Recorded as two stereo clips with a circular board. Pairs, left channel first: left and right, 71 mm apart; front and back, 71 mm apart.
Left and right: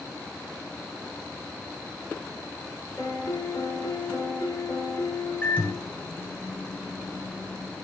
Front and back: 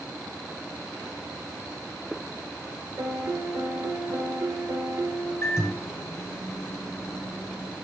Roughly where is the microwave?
Ahead left.